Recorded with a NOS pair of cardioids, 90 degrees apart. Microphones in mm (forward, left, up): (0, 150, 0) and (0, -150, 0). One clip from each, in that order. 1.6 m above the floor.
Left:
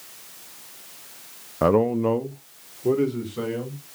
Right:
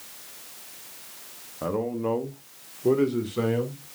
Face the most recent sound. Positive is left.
turn(degrees=-20)